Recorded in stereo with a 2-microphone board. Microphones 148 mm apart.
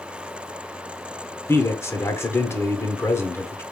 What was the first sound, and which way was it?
A man speaking, 20° left (ahead or behind).